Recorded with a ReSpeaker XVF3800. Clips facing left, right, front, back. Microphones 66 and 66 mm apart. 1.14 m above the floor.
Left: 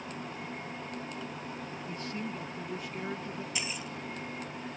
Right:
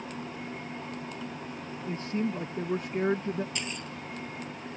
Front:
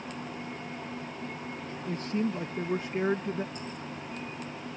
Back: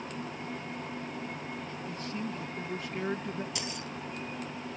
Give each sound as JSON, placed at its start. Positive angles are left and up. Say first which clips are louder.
{"t": 1.9, "sound": "a man speaking", "louder": "right 9 dB, front 8 dB", "azimuth_deg": -35}
{"t": 3.5, "sound": "keys jangling", "louder": "right 1 dB, back 1 dB", "azimuth_deg": 175}